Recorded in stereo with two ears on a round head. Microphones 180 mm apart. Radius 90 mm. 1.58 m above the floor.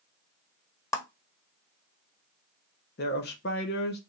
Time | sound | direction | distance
0.9 | a clap | 15° left (ahead or behind) | 0.9 m
3.0 | a woman speaking | 55° left (ahead or behind) | 1.0 m